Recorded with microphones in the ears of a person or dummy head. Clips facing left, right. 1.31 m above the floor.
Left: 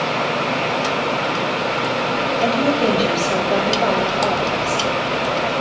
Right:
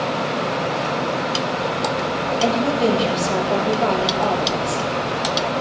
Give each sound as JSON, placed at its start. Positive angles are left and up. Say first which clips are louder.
{"t": 2.4, "sound": "a woman speaking", "louder": "left 1 dB", "side_deg": 15, "distance_m": 6.5}